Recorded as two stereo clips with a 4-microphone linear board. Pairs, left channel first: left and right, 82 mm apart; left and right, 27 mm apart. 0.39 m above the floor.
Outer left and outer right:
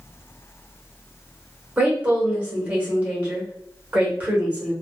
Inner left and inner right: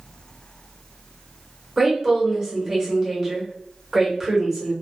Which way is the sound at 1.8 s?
20° right (ahead or behind).